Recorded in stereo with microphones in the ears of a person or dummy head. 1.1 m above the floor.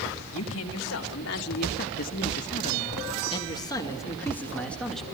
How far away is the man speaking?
About 2 m.